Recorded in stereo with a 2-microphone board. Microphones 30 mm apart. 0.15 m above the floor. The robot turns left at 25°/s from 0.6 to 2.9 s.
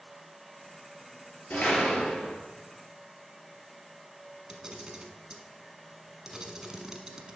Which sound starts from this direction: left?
A door slam, at 1.5 s.